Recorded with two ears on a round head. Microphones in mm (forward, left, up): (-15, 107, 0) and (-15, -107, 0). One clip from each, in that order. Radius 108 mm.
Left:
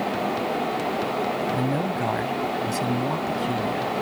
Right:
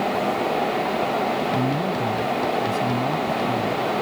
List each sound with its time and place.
1.5 s a man speaking: 50° left (ahead or behind); by 3.9 s 45° left (ahead or behind)